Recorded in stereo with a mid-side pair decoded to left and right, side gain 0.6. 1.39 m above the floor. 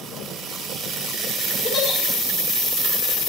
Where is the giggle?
35° left, 6 m.